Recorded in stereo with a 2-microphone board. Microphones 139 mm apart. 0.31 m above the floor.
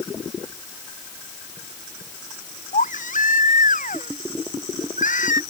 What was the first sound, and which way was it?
A baby crying, 80° left.